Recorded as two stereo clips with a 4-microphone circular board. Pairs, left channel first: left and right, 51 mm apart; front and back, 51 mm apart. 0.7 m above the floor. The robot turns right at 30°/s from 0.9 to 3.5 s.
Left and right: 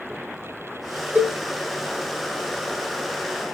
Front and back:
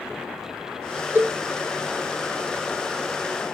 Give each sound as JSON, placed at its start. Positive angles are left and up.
{"t": 1.1, "sound": "a cowbell", "azimuth_deg": -140, "distance_m": 1.0}